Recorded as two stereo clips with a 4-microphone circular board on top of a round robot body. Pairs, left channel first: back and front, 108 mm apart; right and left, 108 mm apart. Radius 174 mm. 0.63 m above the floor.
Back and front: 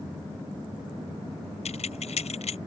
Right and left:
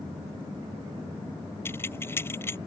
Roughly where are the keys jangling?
Behind.